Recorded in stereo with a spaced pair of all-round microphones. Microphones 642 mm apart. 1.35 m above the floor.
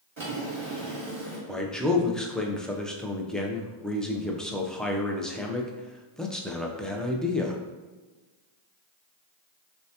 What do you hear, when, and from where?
0.2 s a drawer: 45° right (ahead or behind), 1.4 m
1.5 s a man speaking: centre (ahead or behind), 0.5 m